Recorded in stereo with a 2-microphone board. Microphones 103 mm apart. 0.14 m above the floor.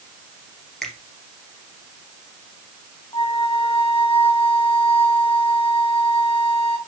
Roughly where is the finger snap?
Centre.